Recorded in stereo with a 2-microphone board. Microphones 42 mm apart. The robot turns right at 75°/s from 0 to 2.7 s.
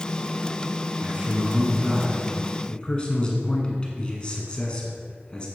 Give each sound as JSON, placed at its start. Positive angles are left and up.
{"t": 1.0, "sound": "a man speaking", "azimuth_deg": -90, "distance_m": 1.5}